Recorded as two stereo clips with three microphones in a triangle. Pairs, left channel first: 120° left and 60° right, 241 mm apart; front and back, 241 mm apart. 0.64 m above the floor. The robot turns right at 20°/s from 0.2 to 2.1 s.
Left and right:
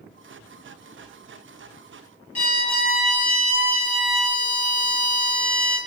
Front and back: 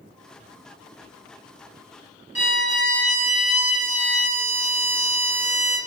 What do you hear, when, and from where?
2.4 s a violin: straight behind, 1.0 m